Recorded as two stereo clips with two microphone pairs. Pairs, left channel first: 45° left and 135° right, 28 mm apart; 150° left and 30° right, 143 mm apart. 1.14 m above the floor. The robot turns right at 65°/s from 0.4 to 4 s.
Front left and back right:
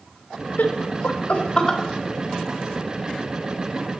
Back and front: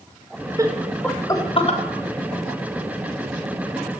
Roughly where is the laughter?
Ahead left.